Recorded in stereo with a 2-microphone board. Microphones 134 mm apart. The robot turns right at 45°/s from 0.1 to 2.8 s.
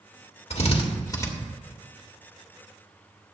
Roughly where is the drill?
Left.